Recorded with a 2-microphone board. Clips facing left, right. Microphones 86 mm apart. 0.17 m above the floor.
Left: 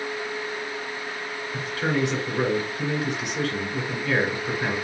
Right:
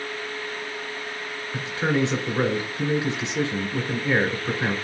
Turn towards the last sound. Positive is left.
turn(degrees=-25)  # may be behind; listen again after turning